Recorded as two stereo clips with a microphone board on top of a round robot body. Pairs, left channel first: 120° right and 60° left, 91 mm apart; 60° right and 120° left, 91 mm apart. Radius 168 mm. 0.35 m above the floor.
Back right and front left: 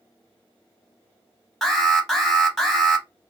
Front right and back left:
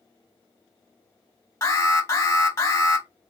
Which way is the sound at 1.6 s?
30° right.